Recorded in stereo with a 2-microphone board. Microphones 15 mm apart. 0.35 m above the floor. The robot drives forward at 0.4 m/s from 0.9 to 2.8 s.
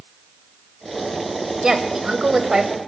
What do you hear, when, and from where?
1.6 s a woman speaking: 45° right (ahead or behind), 1.1 m; by 2.8 s 40° right (ahead or behind), 1.3 m